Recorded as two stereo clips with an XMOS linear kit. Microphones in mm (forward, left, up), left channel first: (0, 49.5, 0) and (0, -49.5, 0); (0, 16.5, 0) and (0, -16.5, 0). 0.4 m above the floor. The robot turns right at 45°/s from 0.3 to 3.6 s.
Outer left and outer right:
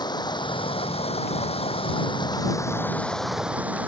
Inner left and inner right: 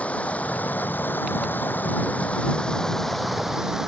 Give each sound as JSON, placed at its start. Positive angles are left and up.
{"t": 0.0, "sound": "running water", "azimuth_deg": 45}